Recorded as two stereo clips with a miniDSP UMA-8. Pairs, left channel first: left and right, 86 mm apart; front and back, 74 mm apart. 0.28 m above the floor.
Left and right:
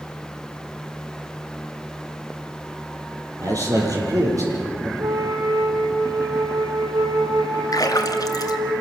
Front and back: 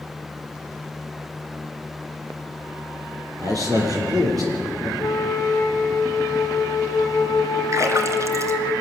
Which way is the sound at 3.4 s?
140° right.